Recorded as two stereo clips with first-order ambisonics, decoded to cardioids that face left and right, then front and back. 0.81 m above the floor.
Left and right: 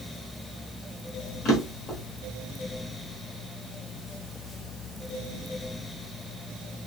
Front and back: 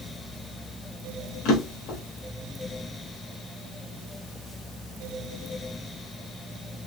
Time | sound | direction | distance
1.4 | a drawer | 35° left | 1.1 m